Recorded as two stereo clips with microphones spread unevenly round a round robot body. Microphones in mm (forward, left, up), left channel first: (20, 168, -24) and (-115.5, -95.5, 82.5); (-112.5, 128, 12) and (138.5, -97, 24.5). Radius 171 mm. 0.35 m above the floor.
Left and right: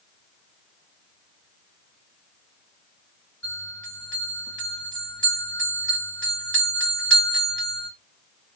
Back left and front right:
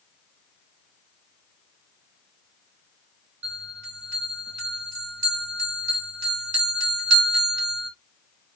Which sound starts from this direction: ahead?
A bell, at 3.4 s.